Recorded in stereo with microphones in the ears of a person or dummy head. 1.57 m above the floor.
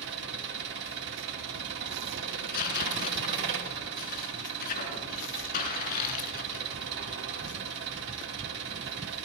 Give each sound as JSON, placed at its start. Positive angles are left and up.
{"t": 0.0, "sound": "an engine running", "side_deg": -60, "distance_m": 3.0}
{"t": 2.3, "sound": "tearing paper", "side_deg": 45, "distance_m": 4.0}